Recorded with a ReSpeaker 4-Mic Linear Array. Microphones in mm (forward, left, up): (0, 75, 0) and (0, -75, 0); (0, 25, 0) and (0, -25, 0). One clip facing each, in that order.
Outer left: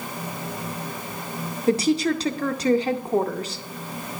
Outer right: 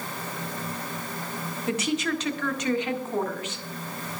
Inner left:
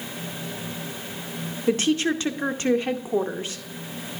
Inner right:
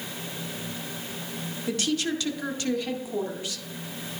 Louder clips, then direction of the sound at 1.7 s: Outer left 7 dB, inner left 6 dB; 40° left (ahead or behind).